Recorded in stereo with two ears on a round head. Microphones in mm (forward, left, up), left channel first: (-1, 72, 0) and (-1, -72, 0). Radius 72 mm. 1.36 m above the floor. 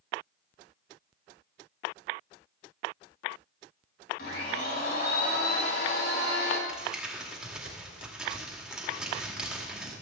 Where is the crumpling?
5° right (ahead or behind), 2 m.